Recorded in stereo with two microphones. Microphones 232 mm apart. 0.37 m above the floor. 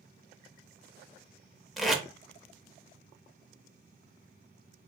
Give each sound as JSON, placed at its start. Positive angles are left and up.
{"t": 1.8, "sound": "tape being pulled", "side_deg": 0, "distance_m": 0.5}